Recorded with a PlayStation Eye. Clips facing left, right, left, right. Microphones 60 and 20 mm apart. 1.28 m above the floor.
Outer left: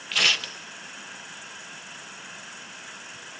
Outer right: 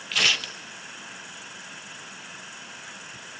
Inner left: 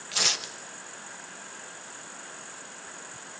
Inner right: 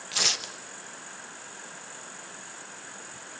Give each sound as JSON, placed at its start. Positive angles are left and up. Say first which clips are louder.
{"t": 0.1, "sound": "tearing paper", "louder": "even, even", "side_deg": 0, "distance_m": 0.8}